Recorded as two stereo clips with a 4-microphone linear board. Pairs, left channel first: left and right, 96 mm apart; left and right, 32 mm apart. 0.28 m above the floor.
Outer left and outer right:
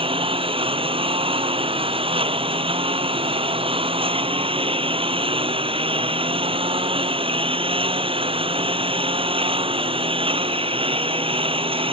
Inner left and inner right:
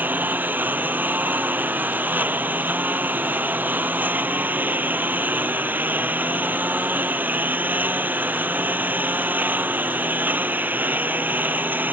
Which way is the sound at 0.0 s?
75° right (ahead or behind).